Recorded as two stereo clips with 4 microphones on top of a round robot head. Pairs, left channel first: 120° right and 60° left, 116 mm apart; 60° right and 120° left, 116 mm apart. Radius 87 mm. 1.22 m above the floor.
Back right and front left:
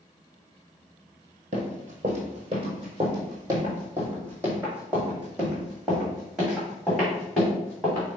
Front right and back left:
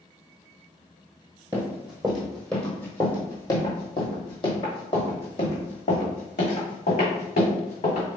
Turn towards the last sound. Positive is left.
turn(degrees=-35)